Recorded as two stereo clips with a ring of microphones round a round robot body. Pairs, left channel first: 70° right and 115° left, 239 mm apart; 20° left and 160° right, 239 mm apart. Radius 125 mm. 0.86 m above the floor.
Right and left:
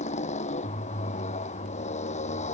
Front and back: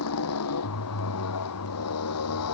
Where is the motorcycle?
5° right.